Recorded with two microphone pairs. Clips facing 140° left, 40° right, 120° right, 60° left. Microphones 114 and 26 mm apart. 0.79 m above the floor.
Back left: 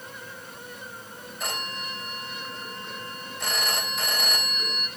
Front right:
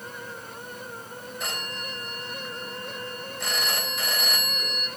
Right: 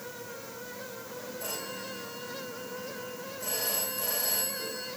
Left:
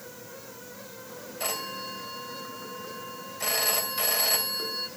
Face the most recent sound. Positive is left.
turn(degrees=50)